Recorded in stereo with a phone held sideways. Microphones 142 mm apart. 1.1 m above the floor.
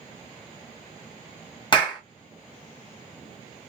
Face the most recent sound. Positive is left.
turn(degrees=35)  # may be behind; listen again after turning